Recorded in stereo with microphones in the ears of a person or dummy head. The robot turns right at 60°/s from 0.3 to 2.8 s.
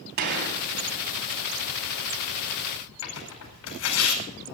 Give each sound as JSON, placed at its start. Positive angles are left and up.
{"t": 0.2, "sound": "a gunshot", "side_deg": -50, "distance_m": 2.5}
{"t": 3.0, "sound": "tearing paper", "side_deg": 70, "distance_m": 4.5}